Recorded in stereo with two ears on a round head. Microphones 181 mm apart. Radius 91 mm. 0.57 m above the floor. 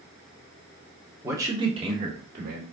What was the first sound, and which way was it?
A man speaking, 10° right (ahead or behind).